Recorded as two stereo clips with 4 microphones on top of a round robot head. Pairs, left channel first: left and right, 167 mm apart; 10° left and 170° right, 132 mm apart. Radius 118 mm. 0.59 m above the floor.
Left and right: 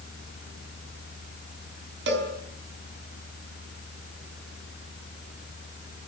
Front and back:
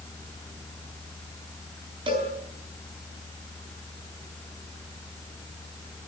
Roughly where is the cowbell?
Right.